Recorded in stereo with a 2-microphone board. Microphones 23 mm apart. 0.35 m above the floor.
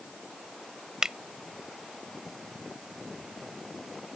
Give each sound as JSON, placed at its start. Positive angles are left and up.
{"t": 1.0, "sound": "a finger snap", "side_deg": -30}